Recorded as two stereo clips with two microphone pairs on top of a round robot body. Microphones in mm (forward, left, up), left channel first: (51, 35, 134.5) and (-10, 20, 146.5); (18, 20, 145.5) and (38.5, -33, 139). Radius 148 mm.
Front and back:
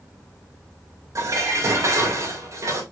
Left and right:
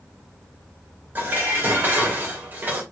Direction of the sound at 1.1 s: 125° right.